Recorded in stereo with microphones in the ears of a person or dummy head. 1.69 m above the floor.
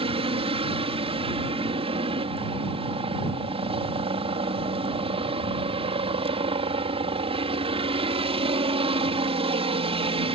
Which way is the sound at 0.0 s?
35° right (ahead or behind).